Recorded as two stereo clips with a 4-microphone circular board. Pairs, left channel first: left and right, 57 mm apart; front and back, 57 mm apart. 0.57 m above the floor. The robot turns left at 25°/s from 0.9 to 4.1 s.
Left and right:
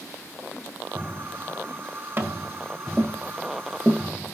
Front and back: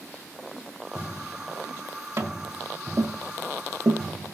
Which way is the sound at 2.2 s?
145° right.